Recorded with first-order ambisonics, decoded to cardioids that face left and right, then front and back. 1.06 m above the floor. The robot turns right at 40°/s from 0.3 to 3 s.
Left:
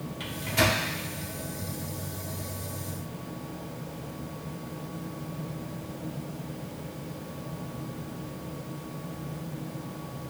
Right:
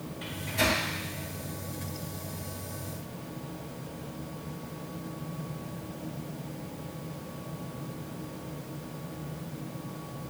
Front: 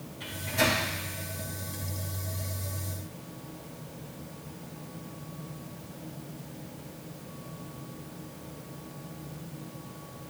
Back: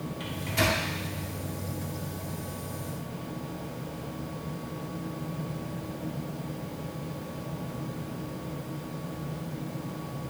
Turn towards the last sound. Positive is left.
turn(degrees=-135)